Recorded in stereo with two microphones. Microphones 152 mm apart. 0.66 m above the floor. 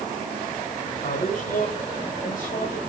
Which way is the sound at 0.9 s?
55° left (ahead or behind).